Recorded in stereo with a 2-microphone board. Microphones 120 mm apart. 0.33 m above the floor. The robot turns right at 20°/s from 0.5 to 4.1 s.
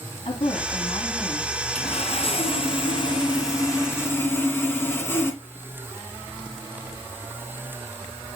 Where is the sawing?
110° left, 2.5 m; by 5.4 s 160° left, 2.5 m.